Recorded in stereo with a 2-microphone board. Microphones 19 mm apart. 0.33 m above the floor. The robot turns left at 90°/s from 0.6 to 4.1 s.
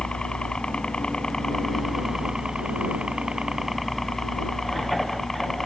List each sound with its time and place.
0.0 s a helicopter: 110° left; by 5.7 s 155° left